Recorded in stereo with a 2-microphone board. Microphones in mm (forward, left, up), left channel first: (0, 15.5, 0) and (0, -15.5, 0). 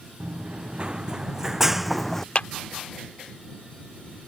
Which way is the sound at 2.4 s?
40° left (ahead or behind).